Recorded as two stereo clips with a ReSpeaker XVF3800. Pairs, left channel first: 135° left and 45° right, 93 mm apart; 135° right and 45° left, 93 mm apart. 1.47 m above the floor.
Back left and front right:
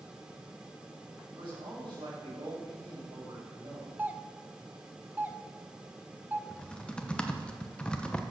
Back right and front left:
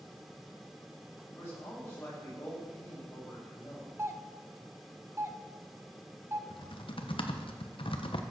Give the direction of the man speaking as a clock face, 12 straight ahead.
2 o'clock.